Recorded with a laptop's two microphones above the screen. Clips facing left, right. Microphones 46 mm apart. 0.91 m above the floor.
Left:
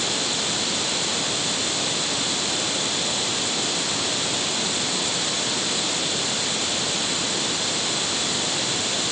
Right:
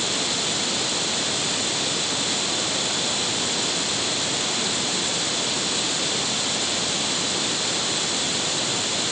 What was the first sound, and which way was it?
Only background noise.